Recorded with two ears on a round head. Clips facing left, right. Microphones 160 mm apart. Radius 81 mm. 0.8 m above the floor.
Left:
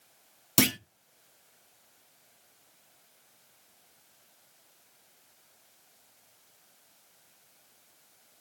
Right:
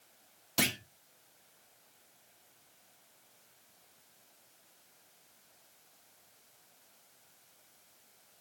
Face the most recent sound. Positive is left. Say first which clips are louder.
# left 8 dB
turn(degrees=60)  # may be behind; listen again after turning